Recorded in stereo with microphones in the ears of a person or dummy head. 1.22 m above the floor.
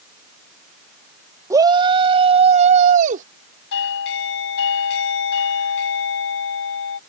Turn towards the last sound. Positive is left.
turn(degrees=65)  # may be behind; listen again after turning